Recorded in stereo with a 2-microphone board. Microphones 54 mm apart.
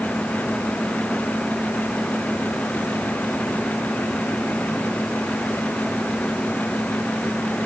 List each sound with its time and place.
Only background noise.